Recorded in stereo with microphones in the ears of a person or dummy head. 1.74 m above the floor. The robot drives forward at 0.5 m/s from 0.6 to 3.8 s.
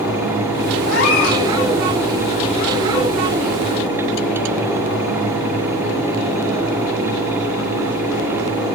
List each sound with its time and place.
0.9 s a cat meowing: 75° left (ahead or behind), 5 m